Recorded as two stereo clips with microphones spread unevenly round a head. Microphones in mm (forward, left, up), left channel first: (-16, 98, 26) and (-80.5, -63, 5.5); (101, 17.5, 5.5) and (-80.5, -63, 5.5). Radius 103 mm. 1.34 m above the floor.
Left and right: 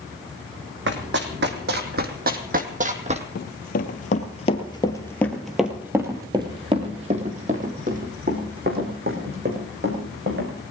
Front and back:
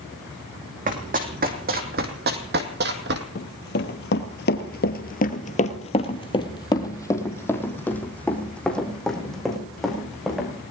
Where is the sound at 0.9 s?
115° right, 3 m; by 3.2 s 160° right, 2 m.